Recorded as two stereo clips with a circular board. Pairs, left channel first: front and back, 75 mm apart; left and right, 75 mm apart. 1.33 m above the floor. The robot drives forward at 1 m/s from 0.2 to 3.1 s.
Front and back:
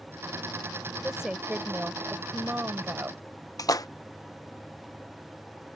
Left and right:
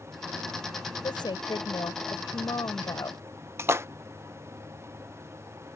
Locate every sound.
1.0 s a woman speaking: 95° left; by 3.2 s 115° left
3.6 s a splash: 35° right